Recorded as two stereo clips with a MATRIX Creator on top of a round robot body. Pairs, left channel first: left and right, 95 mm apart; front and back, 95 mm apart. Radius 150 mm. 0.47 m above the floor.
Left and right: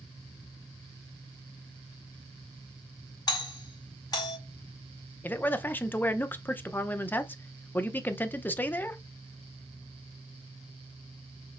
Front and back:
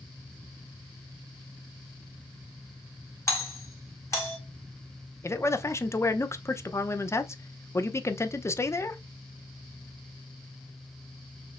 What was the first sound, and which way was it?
A doorbell, 50° left.